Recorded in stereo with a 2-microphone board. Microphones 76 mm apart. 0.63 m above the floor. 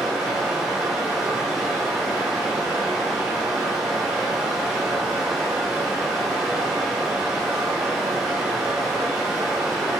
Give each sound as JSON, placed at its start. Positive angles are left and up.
{"t": 0.0, "sound": "running water", "side_deg": 0, "distance_m": 1.9}